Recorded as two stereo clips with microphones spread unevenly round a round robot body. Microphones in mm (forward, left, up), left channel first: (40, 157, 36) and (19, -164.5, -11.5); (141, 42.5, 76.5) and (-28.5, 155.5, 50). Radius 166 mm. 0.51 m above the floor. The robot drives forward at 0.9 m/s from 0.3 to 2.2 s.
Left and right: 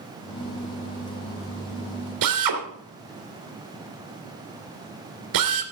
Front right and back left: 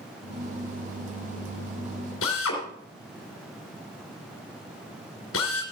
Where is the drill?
70° right, 2.5 m.